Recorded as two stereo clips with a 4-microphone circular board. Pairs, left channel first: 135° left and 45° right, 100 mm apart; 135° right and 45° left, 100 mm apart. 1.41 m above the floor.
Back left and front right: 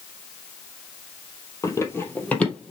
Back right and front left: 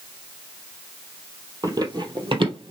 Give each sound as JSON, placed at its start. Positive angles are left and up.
{"t": 1.6, "sound": "running footsteps", "azimuth_deg": 85, "distance_m": 2.0}